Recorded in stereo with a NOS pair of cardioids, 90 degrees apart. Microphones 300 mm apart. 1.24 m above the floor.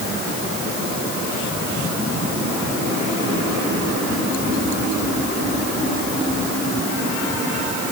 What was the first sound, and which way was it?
Only background noise.